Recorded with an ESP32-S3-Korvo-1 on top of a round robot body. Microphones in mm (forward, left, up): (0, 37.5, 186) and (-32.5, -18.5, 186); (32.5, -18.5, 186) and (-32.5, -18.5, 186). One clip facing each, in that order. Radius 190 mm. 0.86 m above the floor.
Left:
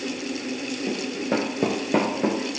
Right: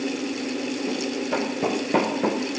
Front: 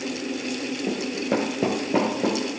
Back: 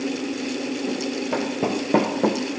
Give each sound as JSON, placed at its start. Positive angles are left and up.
{"t": 0.9, "sound": "running footsteps", "azimuth_deg": -5, "distance_m": 0.9}